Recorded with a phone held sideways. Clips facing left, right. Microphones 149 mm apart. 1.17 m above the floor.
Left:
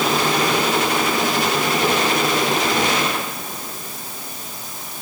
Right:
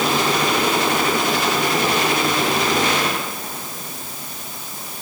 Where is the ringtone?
No ringtone in this recording.